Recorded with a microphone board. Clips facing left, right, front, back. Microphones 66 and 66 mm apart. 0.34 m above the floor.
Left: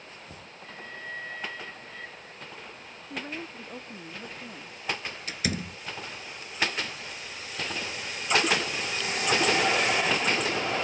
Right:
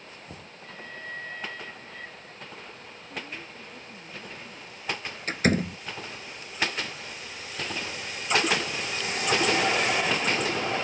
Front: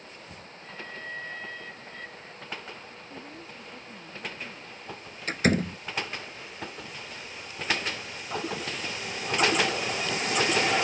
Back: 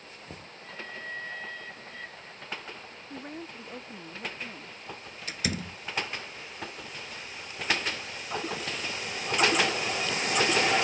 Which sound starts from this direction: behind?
Knocking, at 0.3 s.